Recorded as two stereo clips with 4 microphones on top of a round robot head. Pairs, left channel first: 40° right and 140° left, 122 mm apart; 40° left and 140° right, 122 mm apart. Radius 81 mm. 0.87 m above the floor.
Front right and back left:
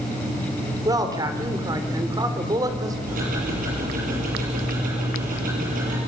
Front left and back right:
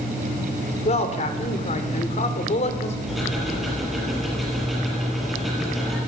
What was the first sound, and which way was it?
A man speaking, 80° left.